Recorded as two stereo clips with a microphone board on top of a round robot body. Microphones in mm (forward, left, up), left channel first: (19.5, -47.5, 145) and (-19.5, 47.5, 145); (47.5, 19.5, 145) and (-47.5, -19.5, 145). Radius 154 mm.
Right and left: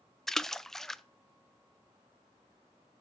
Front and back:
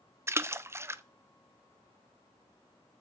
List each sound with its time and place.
0.3 s a splash: 150° right, 0.7 m